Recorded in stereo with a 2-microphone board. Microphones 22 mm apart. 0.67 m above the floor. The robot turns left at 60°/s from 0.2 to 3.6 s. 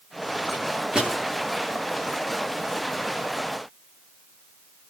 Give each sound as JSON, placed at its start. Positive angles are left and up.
{"t": 0.5, "sound": "a microwave", "side_deg": -75, "distance_m": 9.0}